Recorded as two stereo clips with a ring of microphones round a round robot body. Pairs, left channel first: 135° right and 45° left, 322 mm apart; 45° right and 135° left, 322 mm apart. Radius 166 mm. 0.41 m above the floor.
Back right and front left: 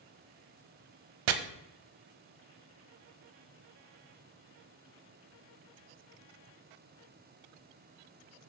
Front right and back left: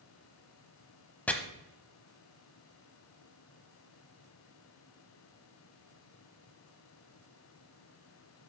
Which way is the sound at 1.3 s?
40° left.